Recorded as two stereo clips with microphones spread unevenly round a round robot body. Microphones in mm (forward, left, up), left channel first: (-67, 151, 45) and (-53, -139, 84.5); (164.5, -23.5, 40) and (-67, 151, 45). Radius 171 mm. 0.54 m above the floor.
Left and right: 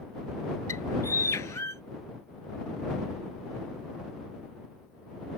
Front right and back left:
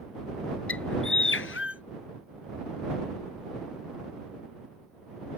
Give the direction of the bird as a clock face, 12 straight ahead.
12 o'clock.